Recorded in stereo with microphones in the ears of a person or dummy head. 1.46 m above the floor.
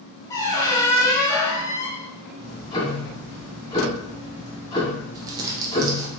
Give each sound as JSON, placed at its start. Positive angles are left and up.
{"t": 0.3, "sound": "a squeak", "side_deg": 20, "distance_m": 0.8}
{"t": 2.4, "sound": "ticking", "side_deg": 25, "distance_m": 1.4}
{"t": 5.2, "sound": "crumpling", "side_deg": -25, "distance_m": 0.8}